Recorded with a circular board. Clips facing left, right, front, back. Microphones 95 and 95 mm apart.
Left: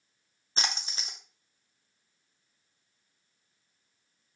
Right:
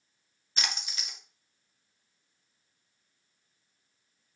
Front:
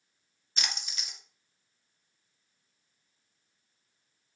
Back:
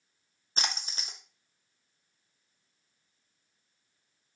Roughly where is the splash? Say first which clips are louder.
Left 2 dB, back 3 dB; behind left.